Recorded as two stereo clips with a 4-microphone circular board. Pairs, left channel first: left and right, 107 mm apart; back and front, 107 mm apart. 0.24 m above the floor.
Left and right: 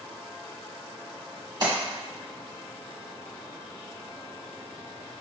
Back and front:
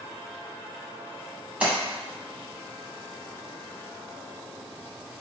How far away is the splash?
About 1.4 m.